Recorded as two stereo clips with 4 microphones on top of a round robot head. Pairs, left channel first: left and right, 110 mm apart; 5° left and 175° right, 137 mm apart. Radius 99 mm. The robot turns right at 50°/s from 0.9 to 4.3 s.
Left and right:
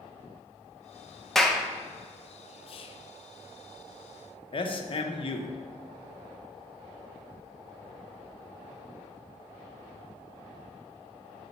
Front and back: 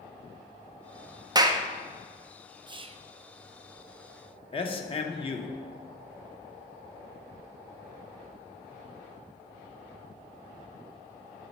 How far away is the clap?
About 0.5 m.